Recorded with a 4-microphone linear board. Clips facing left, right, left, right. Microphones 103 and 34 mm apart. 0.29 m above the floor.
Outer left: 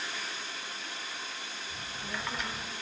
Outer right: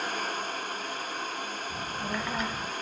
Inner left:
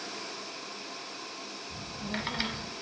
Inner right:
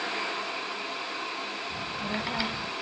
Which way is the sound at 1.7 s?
50° right (ahead or behind).